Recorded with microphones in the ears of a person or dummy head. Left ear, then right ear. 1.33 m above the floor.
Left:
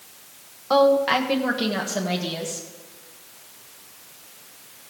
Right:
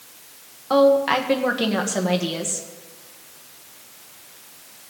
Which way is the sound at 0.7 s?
10° left (ahead or behind).